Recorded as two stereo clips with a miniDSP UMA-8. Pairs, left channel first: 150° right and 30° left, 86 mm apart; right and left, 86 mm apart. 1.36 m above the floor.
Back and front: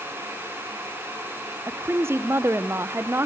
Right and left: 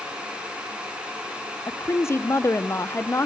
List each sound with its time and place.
1.7 s a woman speaking: 30° right, 0.6 m